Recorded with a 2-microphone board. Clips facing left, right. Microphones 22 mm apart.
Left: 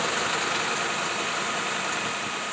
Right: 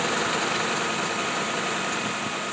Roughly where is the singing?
I don't hear singing.